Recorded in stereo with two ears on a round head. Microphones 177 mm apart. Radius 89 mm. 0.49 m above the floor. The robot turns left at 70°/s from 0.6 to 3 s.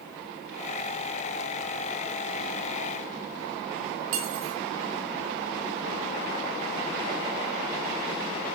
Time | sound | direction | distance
4.1 | cutlery clinking | 75° right (ahead or behind) | 3.5 m